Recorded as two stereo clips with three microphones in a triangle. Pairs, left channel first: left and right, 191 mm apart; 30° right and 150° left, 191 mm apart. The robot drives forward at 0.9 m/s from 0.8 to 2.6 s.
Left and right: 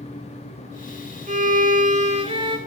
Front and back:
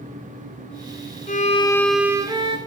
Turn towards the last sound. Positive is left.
turn(degrees=-155)